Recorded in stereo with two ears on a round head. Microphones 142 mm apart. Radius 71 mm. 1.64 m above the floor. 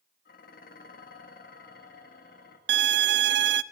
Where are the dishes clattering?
60° left (ahead or behind), 2 m.